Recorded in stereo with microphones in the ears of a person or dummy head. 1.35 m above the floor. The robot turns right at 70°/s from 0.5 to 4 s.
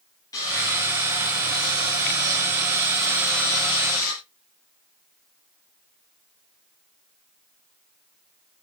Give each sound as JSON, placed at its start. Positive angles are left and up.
{"t": 0.3, "sound": "sawing", "azimuth_deg": 170, "distance_m": 8.5}